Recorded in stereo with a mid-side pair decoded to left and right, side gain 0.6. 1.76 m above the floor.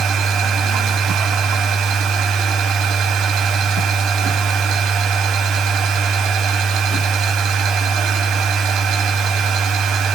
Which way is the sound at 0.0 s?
60° right.